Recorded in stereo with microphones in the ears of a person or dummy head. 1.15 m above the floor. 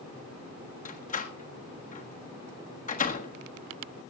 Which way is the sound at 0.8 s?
35° left (ahead or behind).